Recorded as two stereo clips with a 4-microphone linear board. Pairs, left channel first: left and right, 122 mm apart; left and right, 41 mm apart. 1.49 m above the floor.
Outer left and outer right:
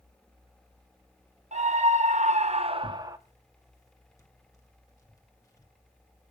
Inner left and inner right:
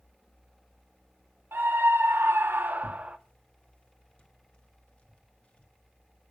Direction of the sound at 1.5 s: 65° right (ahead or behind).